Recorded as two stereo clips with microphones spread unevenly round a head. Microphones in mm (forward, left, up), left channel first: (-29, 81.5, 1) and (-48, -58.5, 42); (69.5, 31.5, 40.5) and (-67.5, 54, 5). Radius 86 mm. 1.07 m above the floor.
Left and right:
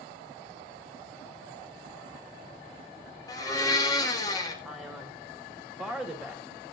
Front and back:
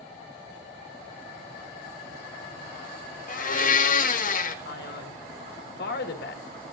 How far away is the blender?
About 1.7 m.